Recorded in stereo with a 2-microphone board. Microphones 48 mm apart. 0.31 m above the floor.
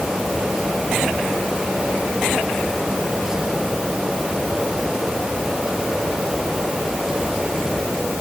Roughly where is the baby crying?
No baby crying in this recording.